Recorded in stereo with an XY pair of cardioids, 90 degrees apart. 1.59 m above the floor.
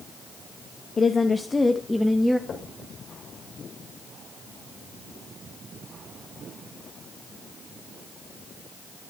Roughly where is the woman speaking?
Ahead left.